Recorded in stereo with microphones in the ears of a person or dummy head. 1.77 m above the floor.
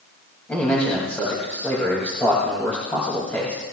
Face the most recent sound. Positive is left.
turn(degrees=20)  # may be behind; listen again after turning